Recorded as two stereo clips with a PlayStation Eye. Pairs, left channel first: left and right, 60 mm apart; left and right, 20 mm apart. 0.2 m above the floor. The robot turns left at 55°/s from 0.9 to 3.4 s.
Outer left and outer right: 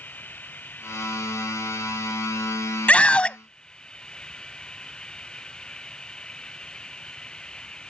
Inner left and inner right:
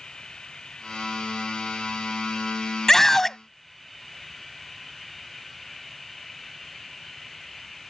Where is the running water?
155° left; by 7.9 s 15° left.